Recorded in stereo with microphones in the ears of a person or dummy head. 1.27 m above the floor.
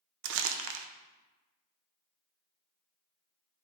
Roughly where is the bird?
I don't hear a bird.